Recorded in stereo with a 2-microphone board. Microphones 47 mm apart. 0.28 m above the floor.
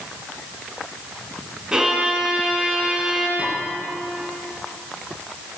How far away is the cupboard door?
No cupboard door in this recording.